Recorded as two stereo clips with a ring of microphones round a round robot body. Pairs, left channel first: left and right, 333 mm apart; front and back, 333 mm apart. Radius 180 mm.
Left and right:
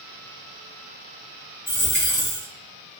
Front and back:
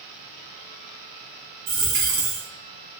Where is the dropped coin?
150° left, 1.8 m.